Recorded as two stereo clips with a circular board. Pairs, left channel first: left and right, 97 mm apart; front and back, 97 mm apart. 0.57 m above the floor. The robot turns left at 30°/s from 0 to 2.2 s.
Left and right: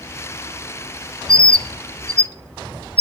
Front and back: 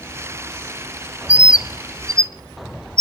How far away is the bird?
About 0.6 m.